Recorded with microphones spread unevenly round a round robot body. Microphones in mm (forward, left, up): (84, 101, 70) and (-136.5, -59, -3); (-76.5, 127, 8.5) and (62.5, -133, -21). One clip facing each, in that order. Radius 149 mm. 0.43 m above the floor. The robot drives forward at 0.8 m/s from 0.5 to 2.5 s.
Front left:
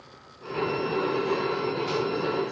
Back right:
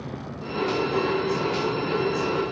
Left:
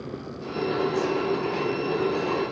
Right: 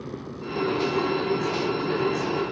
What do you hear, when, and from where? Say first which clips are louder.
0.0 s a vehicle: back right 12 dB, even; 145° right; by 2.5 s 140° right